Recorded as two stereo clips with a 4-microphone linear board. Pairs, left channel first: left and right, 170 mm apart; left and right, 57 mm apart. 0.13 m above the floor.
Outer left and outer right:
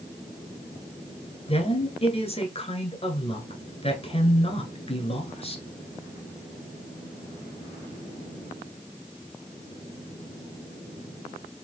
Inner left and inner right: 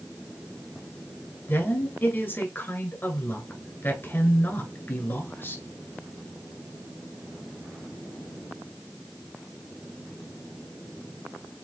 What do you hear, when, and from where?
1.5 s a woman speaking: 35° left (ahead or behind), 1.6 m